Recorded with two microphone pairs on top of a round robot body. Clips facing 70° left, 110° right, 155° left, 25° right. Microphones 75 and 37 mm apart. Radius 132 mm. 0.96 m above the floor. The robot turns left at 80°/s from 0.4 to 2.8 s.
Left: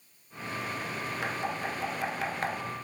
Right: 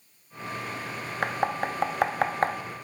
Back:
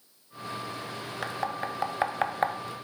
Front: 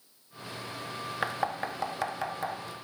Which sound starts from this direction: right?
Knocking, at 1.2 s.